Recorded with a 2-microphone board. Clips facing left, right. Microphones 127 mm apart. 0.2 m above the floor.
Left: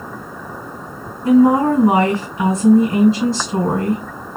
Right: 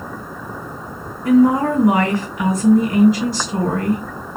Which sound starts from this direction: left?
A woman speaking, at 1.2 s.